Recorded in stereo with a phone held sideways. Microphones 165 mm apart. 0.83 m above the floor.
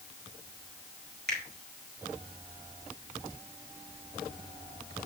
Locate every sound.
1.3 s a finger snap: 80° right, 4 m